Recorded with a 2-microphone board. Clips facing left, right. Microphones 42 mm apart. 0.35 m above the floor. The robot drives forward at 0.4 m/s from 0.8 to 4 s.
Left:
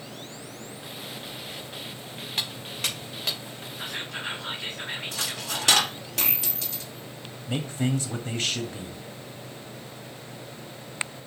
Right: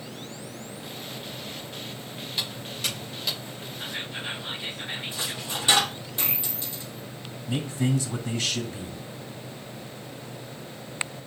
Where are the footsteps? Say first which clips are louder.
Left 1 dB; 55° left (ahead or behind), 5.5 m.